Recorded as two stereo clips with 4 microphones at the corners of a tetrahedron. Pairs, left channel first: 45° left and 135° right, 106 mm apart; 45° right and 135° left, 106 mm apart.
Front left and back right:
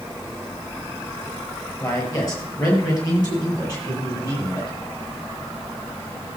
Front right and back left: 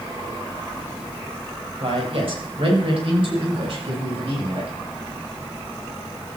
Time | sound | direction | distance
1.8 | a man speaking | 100° left | 5.5 m